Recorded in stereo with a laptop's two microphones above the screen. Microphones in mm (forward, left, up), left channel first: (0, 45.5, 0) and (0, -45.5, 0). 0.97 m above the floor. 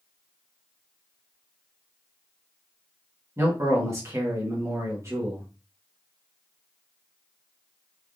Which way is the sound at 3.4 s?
30° right (ahead or behind).